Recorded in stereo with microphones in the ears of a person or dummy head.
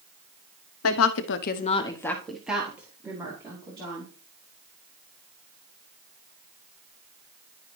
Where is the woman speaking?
75° left (ahead or behind), 1.0 m; by 4.1 s 25° right (ahead or behind), 3 m.